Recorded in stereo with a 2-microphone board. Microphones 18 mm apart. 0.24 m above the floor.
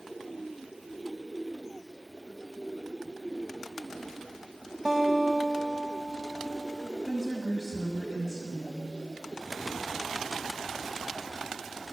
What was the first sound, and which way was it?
A guitar, 25° right (ahead or behind).